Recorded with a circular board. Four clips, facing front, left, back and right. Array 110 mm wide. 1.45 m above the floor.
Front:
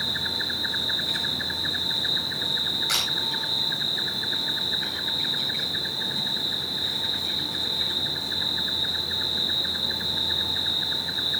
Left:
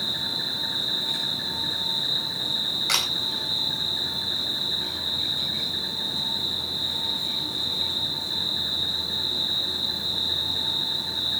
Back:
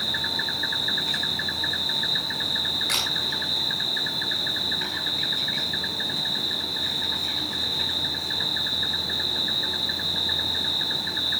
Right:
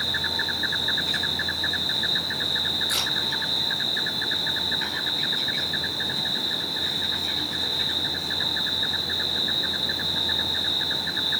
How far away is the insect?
About 4.5 m.